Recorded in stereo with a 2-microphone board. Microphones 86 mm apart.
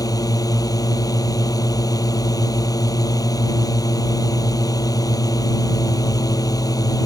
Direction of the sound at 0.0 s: 45° left (ahead or behind).